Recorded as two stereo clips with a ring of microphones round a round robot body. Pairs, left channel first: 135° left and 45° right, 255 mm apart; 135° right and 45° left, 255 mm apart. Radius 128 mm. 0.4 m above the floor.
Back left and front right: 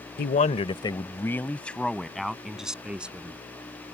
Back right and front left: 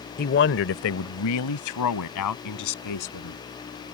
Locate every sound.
0.2 s a man speaking: straight behind; by 3.4 s 130° right